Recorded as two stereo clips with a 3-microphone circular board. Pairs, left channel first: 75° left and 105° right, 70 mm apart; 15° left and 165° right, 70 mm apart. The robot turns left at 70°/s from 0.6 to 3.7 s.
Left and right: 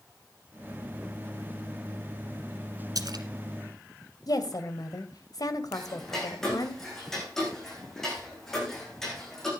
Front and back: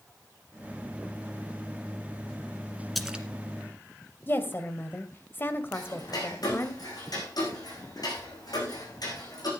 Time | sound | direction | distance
3.0 | a splash | 75° right | 1.2 m
4.3 | a woman speaking | 70° left | 1.8 m
5.7 | ticking | 10° right | 6 m